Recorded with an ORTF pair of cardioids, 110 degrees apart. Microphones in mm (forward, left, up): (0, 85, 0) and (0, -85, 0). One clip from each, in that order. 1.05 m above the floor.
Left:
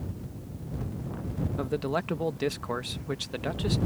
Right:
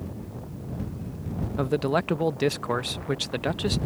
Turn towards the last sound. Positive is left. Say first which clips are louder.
# right 5 dB
turn(degrees=-25)